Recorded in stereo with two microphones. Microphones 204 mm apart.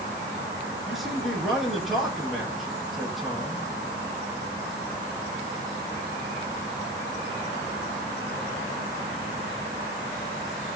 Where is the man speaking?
Centre (ahead or behind), 5 m.